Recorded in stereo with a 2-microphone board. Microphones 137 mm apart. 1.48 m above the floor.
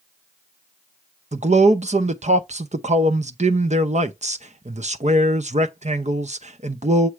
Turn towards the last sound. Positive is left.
turn(degrees=-55)  # may be behind; listen again after turning